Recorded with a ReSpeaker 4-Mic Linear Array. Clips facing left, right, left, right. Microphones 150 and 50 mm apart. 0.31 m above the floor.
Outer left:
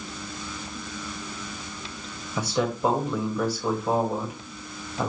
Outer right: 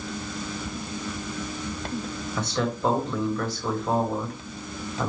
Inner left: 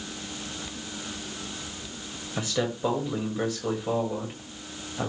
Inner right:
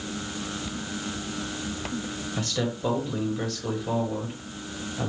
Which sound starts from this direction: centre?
A man speaking, at 2.4 s.